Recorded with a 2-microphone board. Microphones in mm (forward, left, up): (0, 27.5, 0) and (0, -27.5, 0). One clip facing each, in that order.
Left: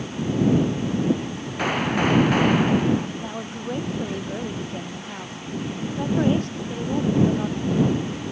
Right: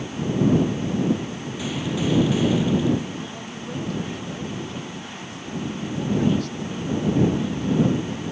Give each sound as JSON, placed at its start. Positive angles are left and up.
{"t": 1.6, "sound": "a gunshot", "side_deg": 50}
{"t": 3.2, "sound": "a woman speaking", "side_deg": 30}